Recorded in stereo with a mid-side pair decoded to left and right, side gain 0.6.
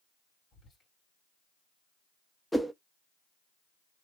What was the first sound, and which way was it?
Whispering, 40° left.